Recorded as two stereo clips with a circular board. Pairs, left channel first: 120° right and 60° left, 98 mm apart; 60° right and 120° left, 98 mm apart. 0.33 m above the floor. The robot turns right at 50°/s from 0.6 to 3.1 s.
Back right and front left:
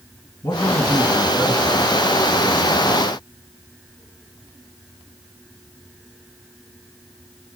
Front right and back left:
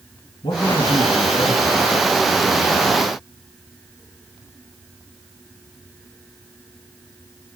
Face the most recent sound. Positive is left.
turn(degrees=65)